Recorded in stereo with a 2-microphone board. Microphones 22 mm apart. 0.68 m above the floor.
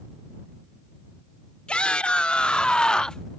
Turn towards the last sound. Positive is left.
turn(degrees=30)  # may be behind; listen again after turning